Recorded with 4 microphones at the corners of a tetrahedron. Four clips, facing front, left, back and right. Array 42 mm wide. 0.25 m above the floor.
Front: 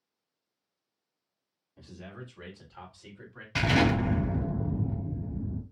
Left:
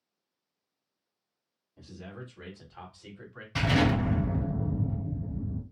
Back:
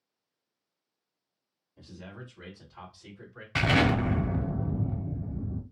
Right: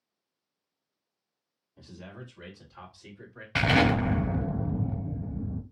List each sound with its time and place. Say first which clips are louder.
1.8 s a man speaking: left 1 dB, even; straight ahead, 1.6 m; by 3.5 s 60° left, 2 m
3.5 s an explosion: right 3 dB, back 1 dB; 105° right, 1.1 m